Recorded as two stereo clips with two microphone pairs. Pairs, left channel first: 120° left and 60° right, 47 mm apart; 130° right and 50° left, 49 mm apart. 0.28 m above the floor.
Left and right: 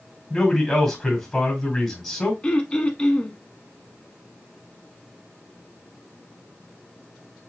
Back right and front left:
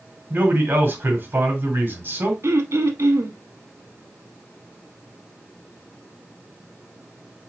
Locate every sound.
0.3 s a man speaking: 40° left, 1.8 m
2.4 s throat clearing: 55° left, 0.8 m